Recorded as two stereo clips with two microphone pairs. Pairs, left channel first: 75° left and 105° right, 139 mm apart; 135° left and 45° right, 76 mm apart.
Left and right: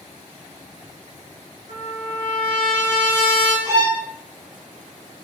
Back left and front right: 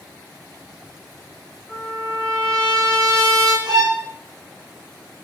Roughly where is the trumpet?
Ahead left.